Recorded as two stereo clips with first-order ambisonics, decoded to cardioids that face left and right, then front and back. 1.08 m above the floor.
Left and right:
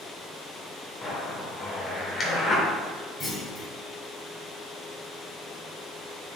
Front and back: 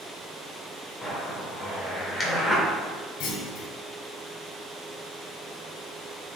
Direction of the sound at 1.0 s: 60° left.